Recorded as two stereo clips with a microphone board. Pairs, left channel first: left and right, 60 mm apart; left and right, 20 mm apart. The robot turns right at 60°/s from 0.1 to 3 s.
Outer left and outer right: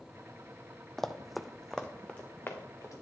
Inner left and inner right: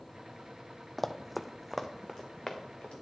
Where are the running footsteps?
5° left (ahead or behind), 0.5 m; by 3.0 s 60° left (ahead or behind), 1.8 m.